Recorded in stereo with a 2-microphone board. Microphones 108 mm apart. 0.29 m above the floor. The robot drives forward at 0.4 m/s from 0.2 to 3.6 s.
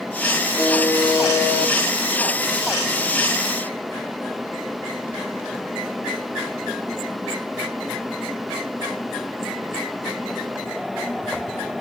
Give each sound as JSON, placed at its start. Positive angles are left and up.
{"t": 0.6, "sound": "a buzzer", "side_deg": 25, "distance_m": 7.0}